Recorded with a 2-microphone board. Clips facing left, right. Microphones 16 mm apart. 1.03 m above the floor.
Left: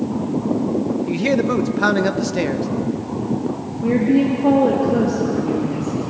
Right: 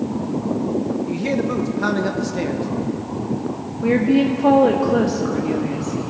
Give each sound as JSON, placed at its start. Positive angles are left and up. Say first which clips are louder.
{"t": 1.1, "sound": "a man speaking", "louder": "left 3 dB", "side_deg": 30, "distance_m": 0.8}
{"t": 3.8, "sound": "a woman speaking", "louder": "even", "side_deg": -40, "distance_m": 1.4}